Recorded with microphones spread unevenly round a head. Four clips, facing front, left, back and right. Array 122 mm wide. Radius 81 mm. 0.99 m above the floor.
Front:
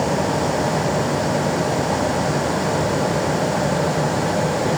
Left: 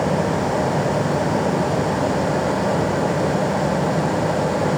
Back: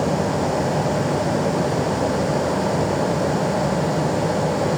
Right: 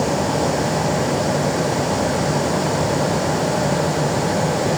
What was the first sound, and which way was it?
Only background noise.